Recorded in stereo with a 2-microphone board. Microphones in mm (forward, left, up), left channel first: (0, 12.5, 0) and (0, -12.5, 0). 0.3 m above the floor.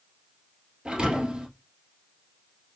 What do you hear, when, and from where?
0.8 s a thud: 35° right (ahead or behind), 1.6 m